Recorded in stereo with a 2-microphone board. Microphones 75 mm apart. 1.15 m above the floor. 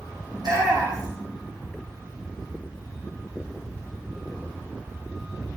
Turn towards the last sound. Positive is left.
turn(degrees=-65)  # may be behind; listen again after turning